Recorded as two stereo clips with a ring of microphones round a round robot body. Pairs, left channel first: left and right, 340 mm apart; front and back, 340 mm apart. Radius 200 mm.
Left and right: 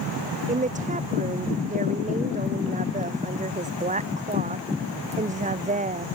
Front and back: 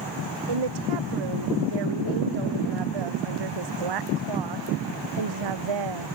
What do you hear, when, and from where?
0.5 s a woman speaking: 160° right